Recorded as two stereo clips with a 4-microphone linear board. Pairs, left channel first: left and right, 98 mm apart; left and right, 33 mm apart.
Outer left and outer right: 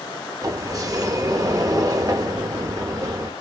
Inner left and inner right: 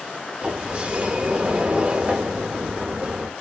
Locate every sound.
0.4 s a sliding door: 35° right (ahead or behind), 0.7 m